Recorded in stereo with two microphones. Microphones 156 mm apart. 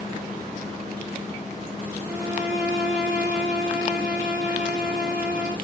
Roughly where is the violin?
Centre.